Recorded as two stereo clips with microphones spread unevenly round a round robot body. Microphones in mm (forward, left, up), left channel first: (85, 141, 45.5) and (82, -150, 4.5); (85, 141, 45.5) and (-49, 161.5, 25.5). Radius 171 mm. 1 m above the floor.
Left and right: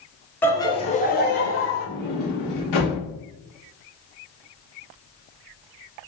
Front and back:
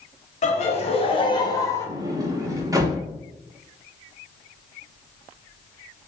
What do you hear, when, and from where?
0.4 s laughter: straight ahead, 1.0 m; by 1.9 s 70° left, 1.0 m
1.9 s a sliding door: 100° left, 1.0 m